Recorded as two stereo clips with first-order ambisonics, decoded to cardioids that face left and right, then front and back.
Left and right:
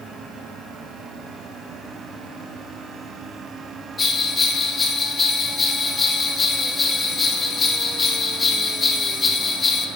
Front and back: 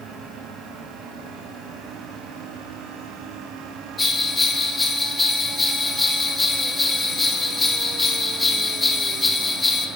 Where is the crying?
No crying in this recording.